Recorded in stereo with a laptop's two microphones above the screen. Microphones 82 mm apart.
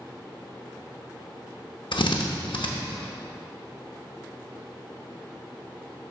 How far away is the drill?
About 0.6 m.